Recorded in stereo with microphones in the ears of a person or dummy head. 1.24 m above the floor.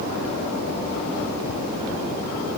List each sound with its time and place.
Only background noise.